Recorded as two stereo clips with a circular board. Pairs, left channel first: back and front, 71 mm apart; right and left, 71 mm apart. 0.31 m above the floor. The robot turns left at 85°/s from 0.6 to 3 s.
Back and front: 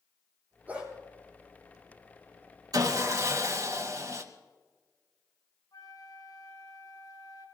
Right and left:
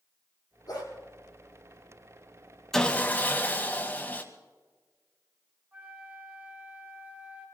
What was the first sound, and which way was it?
A dog barking, 65° right.